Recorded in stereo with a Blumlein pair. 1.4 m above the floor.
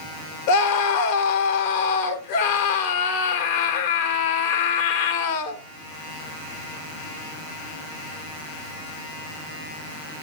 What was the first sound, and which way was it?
A scream, 50° left.